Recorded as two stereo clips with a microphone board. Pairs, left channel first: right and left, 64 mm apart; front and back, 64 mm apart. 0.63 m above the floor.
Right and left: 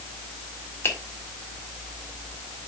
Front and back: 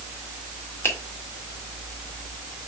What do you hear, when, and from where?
0.8 s a finger snap: 40° right, 2.0 m